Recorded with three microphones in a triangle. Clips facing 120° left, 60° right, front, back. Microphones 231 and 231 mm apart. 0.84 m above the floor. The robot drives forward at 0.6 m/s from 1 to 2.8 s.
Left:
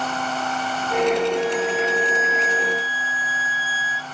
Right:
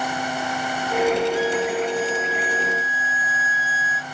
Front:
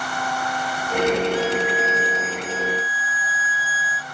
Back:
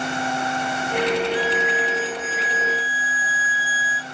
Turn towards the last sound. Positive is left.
turn(degrees=140)